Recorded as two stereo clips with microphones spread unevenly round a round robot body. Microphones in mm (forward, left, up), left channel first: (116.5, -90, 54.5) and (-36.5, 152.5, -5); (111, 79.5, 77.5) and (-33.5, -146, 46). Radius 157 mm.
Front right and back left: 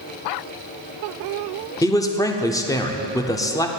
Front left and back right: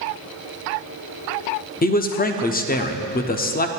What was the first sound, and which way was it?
A man speaking, 35° left.